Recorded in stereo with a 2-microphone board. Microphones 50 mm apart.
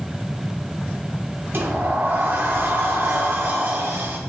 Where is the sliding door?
45° right (ahead or behind), 1.1 m.